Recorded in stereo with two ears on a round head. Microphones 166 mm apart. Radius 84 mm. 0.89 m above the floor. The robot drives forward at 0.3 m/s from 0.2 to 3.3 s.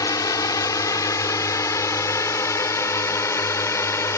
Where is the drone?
20° left (ahead or behind); by 4.2 s 15° left (ahead or behind).